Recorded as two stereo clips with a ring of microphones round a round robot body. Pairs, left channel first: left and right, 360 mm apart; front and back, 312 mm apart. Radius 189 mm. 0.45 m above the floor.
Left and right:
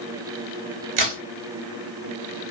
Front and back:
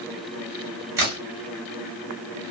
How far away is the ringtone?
No ringtone in this recording.